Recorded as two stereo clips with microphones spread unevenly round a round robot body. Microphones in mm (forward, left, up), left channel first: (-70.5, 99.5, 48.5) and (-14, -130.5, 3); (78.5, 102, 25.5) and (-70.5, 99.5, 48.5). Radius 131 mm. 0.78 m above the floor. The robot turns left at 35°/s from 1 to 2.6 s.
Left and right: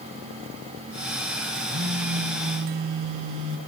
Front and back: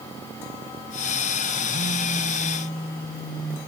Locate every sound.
1.7 s a phone buzzing: 25° right, 3 m; by 3.6 s 55° right, 3 m